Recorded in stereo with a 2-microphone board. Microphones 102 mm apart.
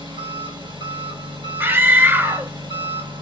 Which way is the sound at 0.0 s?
45° right (ahead or behind).